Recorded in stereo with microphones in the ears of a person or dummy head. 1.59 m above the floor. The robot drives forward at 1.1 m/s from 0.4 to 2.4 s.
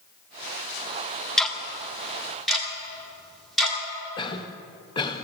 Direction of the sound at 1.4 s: Centre (ahead or behind).